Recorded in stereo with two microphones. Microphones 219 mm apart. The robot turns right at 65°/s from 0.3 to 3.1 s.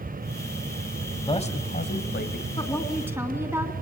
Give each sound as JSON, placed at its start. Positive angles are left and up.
{"t": 1.3, "sound": "a man speaking", "azimuth_deg": 25, "distance_m": 2.5}
{"t": 2.6, "sound": "a woman speaking", "azimuth_deg": 155, "distance_m": 3.5}